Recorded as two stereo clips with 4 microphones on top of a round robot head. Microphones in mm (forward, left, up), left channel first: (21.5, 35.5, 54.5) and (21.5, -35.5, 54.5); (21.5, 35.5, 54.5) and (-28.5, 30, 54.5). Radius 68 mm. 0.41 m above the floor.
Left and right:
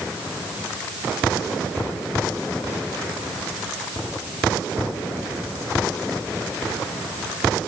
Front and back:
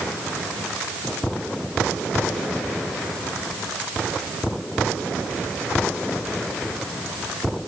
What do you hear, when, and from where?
Only background noise.